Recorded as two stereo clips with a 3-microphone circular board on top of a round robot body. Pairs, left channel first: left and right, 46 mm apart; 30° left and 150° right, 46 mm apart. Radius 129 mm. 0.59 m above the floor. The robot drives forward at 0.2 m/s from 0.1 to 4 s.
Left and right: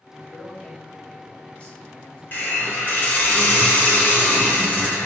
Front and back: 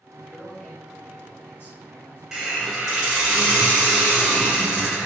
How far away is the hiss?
About 1.2 m.